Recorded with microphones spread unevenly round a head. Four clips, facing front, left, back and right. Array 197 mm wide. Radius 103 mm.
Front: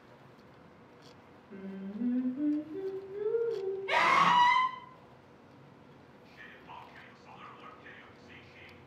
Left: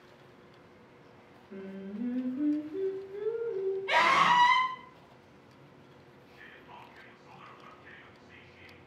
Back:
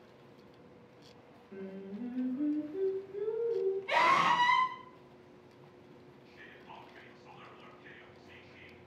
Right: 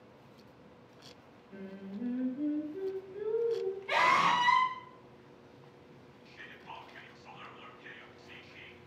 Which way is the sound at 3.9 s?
75° left.